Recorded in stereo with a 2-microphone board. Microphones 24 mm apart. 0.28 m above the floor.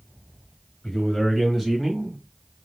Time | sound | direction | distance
0.8 | a man speaking | 25° left (ahead or behind) | 1.5 m